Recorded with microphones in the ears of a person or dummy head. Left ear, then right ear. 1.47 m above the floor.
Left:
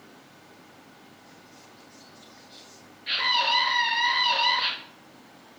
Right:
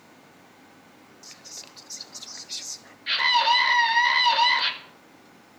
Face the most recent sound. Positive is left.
turn(degrees=-20)  # may be behind; listen again after turning